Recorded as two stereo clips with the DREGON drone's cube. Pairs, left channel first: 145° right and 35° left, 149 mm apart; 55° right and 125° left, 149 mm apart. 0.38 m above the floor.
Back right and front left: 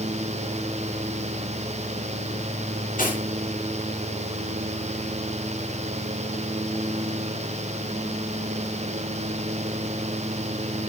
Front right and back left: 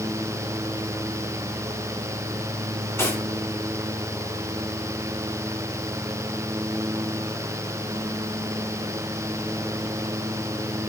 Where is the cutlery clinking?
130° right, 2.5 m.